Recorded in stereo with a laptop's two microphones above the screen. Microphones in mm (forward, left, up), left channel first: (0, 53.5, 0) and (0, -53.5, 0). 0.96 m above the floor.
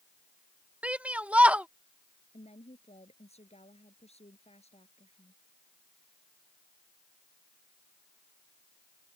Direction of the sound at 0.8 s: 10° right (ahead or behind).